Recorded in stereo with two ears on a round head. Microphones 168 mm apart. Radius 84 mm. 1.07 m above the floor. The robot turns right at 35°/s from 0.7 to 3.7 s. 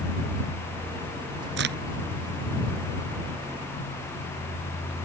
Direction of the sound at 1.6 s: 65° right (ahead or behind).